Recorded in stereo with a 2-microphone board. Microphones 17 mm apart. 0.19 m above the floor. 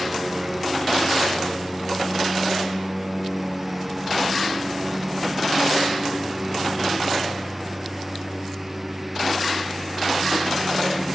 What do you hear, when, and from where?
0.0 s a lawn mower: 5° right (ahead or behind); by 11.2 s 10° right (ahead or behind)